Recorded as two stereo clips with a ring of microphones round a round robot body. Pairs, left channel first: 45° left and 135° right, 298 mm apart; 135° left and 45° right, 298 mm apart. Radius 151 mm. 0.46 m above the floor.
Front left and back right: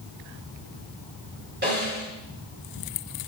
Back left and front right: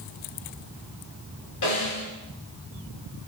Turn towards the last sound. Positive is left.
turn(degrees=170)